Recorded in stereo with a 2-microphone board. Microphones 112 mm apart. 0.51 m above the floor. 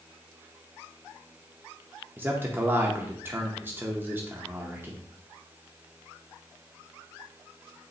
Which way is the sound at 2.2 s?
20° right (ahead or behind).